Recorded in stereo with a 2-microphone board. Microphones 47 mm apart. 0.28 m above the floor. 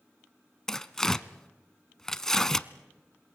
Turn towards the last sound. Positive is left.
turn(degrees=10)  # may be behind; listen again after turning